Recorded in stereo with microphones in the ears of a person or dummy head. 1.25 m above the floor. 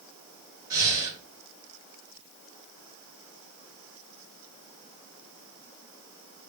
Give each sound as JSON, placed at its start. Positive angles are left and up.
{"t": 0.7, "sound": "breathing", "side_deg": -20, "distance_m": 1.0}